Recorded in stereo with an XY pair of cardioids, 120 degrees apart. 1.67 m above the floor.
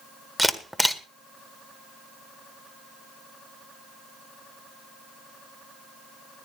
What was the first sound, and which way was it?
A camera shutter, straight ahead.